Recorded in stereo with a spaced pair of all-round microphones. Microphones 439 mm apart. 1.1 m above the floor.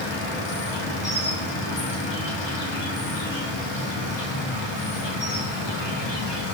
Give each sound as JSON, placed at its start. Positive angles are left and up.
{"t": 0.0, "sound": "an insect", "side_deg": 75, "distance_m": 0.7}